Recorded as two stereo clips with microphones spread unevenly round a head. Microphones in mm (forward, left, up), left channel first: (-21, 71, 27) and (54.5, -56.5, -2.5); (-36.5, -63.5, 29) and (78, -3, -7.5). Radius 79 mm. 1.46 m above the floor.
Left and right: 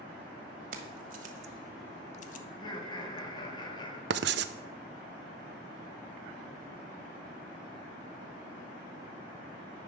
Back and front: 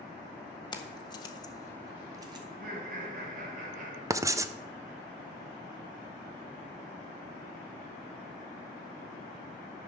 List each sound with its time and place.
0.7 s keys jangling: 100° right, 1.8 m; by 2.4 s 100° left, 1.0 m
2.5 s laughter: 55° left, 2 m
4.1 s writing: 45° right, 0.6 m